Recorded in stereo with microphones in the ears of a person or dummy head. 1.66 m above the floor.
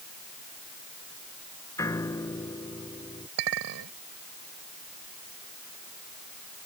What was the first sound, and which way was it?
A piano, 10° left (ahead or behind).